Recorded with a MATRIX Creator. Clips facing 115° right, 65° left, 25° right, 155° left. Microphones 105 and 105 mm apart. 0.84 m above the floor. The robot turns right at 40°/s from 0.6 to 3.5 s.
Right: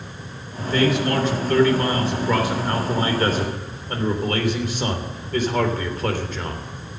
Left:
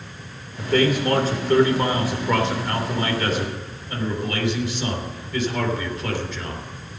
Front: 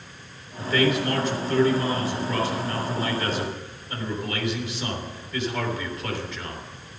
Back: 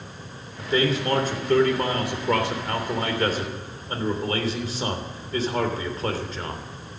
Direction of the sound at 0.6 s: 90° left.